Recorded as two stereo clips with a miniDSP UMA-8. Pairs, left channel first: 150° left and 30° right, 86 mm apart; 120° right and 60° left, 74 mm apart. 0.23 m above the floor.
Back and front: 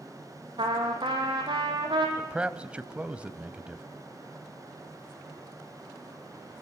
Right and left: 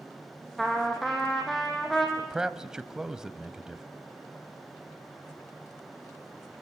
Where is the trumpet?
30° right, 4 m.